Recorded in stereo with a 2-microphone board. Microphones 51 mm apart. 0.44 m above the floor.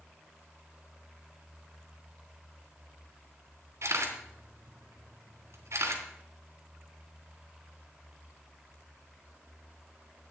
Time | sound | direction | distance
3.8 | a camera shutter | 60° right (ahead or behind) | 3 m